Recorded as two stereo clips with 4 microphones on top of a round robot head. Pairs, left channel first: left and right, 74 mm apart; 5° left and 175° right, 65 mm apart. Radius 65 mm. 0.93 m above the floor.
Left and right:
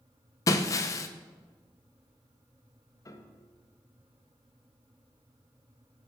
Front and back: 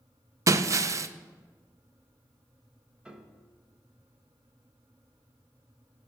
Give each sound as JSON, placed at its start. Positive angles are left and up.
{"t": 0.5, "sound": "breaking glass", "azimuth_deg": 145, "distance_m": 0.5}
{"t": 3.0, "sound": "a piano", "azimuth_deg": 110, "distance_m": 0.9}